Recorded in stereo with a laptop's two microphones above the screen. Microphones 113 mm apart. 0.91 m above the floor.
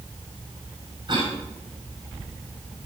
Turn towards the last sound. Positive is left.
turn(degrees=-45)  # may be behind; listen again after turning